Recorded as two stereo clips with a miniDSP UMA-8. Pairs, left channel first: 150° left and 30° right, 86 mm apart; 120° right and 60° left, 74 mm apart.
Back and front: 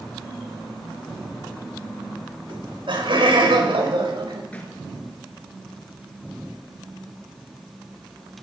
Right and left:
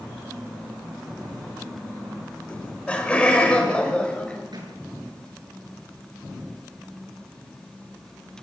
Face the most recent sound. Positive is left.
turn(degrees=75)